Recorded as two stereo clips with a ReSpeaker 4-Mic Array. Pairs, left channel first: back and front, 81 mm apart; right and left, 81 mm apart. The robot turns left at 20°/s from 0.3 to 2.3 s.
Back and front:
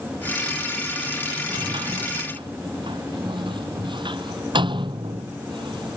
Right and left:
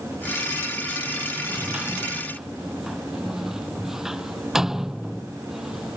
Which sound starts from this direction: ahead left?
A sliding door, at 1.5 s.